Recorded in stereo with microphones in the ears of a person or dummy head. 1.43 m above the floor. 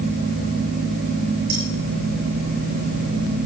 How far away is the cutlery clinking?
About 8.5 m.